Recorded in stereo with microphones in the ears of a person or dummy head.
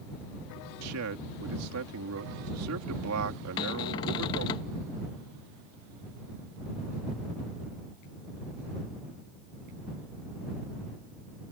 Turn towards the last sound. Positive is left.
turn(degrees=20)  # may be behind; listen again after turning